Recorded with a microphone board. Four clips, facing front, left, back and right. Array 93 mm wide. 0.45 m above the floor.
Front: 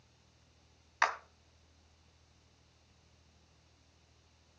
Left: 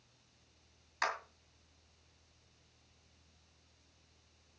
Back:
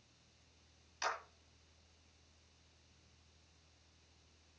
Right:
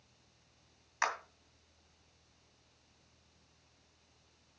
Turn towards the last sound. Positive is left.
turn(degrees=-10)